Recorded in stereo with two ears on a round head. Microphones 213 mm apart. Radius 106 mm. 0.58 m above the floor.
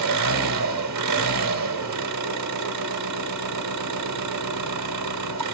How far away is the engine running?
About 1.0 m.